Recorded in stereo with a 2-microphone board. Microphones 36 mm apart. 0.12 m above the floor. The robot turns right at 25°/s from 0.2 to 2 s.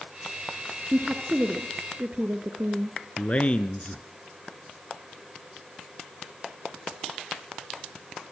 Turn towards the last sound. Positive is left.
turn(degrees=35)  # may be behind; listen again after turning